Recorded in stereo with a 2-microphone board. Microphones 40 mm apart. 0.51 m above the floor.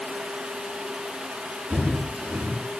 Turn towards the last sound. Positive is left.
turn(degrees=-55)  # may be behind; listen again after turning